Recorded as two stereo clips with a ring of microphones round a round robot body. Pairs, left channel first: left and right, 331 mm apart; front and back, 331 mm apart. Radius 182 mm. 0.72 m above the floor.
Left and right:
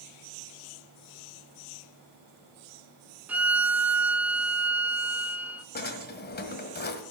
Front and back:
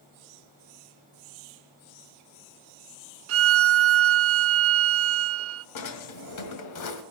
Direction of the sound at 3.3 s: 175° right.